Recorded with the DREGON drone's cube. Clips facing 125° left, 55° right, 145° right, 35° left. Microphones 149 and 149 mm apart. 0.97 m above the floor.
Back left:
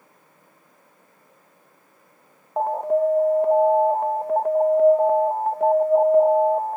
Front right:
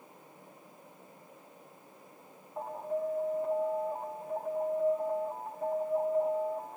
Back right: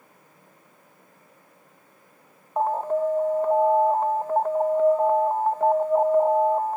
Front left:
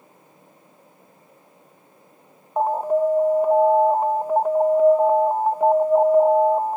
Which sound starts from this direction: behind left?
An alarm, at 2.6 s.